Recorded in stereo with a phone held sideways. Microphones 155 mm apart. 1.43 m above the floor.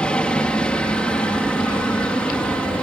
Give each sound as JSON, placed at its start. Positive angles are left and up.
{"t": 0.0, "sound": "a helicopter", "side_deg": 5}